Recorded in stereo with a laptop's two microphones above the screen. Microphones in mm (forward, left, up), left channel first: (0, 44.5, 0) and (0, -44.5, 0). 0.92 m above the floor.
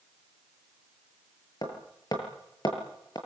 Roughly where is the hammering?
Left.